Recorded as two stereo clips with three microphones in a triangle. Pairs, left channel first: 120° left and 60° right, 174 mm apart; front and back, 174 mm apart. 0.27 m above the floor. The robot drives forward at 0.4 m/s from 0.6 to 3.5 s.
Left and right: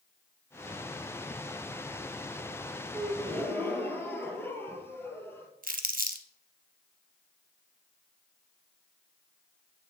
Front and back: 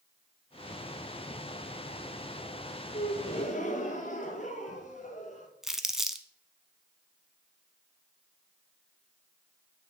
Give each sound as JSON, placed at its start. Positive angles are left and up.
{"t": 2.9, "sound": "a gasp", "azimuth_deg": 35, "distance_m": 1.1}
{"t": 5.6, "sound": "crumpling", "azimuth_deg": -90, "distance_m": 0.6}